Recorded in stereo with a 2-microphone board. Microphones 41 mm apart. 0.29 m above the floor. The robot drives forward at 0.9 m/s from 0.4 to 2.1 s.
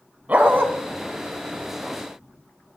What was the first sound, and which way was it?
A dog barking, 40° right (ahead or behind).